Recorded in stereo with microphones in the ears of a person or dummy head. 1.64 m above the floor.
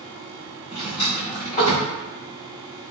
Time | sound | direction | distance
0.7 | a drawer | 40° left (ahead or behind) | 1.1 m